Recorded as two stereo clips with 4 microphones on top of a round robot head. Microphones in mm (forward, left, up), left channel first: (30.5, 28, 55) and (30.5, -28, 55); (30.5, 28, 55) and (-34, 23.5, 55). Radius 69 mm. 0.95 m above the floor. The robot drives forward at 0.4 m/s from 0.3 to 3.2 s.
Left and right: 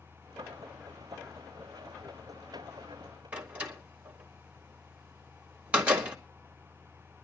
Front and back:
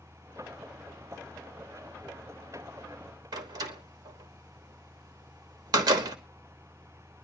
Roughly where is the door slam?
Behind.